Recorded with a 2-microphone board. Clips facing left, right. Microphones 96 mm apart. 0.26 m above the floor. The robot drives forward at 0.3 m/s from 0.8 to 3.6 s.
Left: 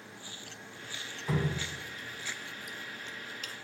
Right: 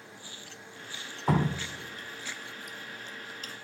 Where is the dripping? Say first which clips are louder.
Right 5 dB; 65° right (ahead or behind), 0.5 m; by 3.5 s 35° right (ahead or behind), 0.8 m.